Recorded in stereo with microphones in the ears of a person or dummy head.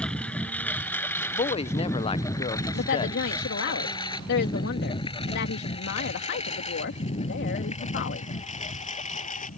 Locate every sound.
0.0 s a lawn mower: centre (ahead or behind); by 9.6 s 35° left (ahead or behind)
1.3 s a woman speaking: 25° left (ahead or behind)
2.7 s a woman speaking: 60° left (ahead or behind)